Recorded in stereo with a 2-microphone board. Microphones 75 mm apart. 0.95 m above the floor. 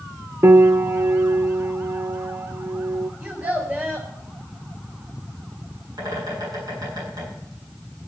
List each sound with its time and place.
0.4 s a piano: 40° right (ahead or behind), 0.8 m
3.2 s a child speaking: 25° right (ahead or behind), 3.5 m
6.0 s a bird: 65° right (ahead or behind), 9 m